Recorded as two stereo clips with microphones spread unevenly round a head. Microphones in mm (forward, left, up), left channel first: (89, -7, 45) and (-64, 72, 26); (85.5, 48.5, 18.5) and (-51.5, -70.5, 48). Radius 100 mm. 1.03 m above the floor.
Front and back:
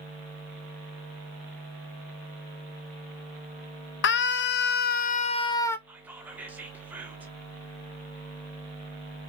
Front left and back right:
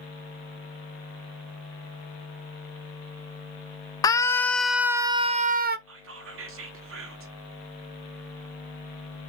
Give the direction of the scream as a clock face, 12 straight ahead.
1 o'clock.